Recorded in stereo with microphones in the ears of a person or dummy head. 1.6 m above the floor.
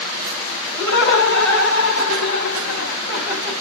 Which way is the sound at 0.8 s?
75° left (ahead or behind).